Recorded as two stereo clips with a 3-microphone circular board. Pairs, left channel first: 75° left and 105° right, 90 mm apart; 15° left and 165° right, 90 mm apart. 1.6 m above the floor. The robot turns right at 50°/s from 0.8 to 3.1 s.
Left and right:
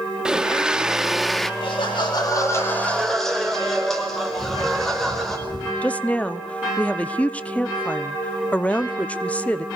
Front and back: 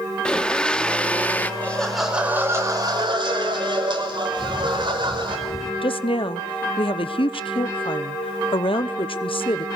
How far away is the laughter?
About 5.5 m.